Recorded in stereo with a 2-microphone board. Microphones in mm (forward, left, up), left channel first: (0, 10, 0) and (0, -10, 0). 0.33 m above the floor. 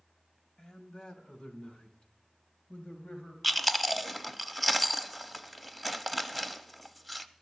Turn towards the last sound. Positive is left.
turn(degrees=0)  # may be behind; listen again after turning